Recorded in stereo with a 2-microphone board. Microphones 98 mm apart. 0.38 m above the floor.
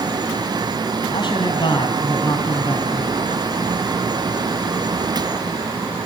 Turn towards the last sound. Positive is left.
turn(degrees=50)  # may be behind; listen again after turning